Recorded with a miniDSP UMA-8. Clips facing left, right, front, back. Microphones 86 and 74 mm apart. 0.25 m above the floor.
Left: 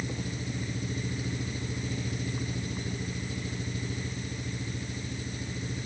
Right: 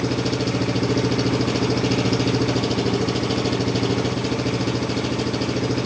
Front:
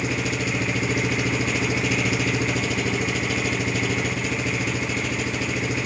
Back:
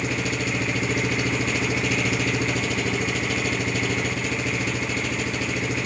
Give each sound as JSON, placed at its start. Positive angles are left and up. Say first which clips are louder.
{"t": 0.0, "sound": "an engine running", "louder": "right 14 dB, front 1 dB", "azimuth_deg": -90}